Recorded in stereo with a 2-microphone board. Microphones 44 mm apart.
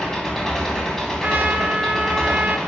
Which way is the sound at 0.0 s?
10° left (ahead or behind).